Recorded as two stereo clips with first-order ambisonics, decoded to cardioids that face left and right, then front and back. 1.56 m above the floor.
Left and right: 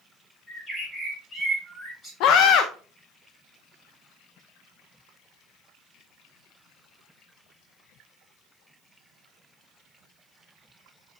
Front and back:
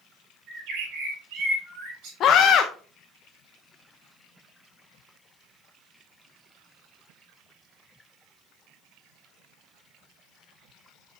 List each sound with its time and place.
0.5 s a bird: 165° left, 4 m
2.2 s a scream: 55° left, 0.6 m